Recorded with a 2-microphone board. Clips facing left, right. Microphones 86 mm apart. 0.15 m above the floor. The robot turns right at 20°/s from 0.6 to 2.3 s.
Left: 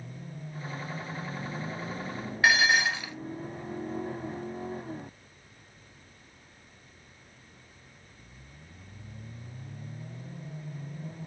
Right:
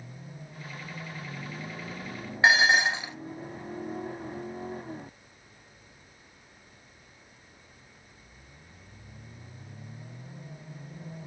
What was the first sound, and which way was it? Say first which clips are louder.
Dishes clattering: right 2 dB; 25° right (ahead or behind).